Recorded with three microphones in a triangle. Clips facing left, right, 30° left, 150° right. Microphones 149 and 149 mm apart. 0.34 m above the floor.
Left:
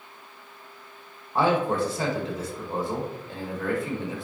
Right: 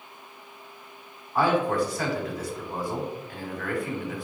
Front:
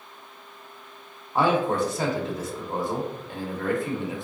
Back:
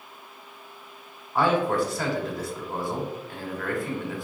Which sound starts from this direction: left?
A man speaking, at 1.4 s.